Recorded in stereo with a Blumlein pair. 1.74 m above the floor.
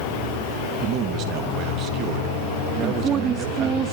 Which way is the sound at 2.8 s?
25° right.